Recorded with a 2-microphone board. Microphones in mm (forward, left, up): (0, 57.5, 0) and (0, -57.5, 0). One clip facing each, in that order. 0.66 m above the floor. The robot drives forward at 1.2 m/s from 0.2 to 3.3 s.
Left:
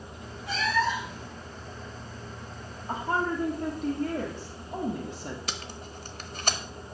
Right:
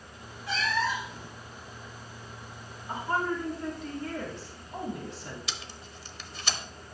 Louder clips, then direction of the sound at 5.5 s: Left 4 dB; 45° left (ahead or behind).